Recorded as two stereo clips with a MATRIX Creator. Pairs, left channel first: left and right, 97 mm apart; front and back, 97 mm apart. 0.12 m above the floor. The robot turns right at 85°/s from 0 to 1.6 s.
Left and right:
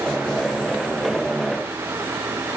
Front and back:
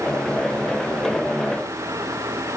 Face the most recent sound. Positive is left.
No sound to turn to.